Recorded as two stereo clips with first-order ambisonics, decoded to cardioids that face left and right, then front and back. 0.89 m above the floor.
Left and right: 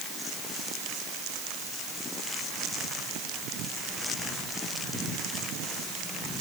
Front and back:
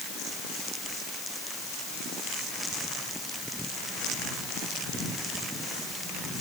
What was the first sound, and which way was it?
Only background noise.